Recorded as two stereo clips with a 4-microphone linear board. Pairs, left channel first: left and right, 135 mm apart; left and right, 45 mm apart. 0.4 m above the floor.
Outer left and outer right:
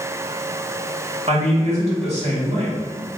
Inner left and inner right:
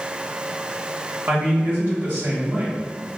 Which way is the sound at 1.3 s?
50° right (ahead or behind).